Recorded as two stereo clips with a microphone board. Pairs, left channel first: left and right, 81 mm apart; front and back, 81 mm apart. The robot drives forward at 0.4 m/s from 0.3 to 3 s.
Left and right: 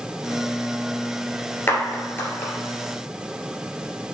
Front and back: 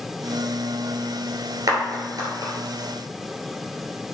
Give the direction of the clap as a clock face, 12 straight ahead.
7 o'clock.